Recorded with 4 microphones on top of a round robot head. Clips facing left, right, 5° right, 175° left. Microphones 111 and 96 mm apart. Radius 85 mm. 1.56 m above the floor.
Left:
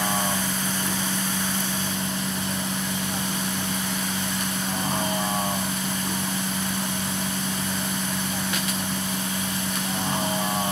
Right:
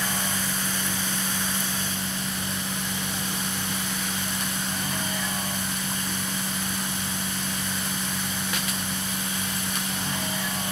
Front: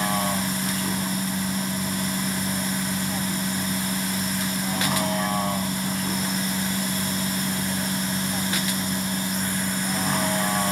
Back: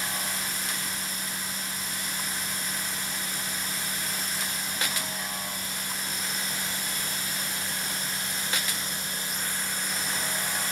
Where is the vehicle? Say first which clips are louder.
Left 4 dB, front 10 dB; 20° left.